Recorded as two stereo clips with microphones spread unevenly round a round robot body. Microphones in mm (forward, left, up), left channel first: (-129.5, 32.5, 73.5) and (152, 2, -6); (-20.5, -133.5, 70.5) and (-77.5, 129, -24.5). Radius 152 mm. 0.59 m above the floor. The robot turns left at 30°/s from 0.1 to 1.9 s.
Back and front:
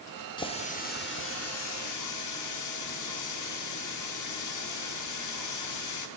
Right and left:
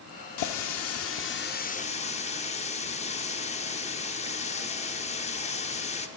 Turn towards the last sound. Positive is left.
turn(degrees=-150)